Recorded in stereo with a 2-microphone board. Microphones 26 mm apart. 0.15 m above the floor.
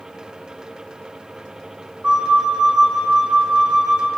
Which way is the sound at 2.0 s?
35° right (ahead or behind).